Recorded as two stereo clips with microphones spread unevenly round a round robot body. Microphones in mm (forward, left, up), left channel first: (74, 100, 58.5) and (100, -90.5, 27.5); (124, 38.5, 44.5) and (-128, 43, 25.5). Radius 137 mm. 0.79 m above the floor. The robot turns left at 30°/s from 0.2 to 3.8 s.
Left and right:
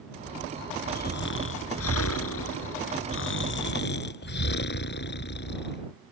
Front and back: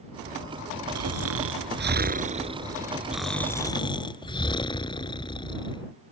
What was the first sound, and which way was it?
Snoring, 155° left.